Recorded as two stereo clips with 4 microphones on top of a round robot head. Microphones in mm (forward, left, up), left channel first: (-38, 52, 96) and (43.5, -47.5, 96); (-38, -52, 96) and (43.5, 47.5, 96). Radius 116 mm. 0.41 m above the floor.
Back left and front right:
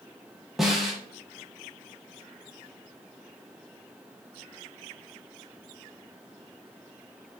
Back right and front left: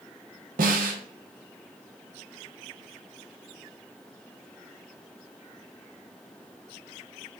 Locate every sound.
0.6 s a snare drum: 35° left, 0.7 m